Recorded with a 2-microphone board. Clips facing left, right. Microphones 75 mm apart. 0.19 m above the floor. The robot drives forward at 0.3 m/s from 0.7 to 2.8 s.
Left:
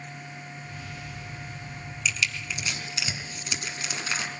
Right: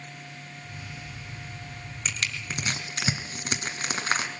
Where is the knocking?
I don't hear knocking.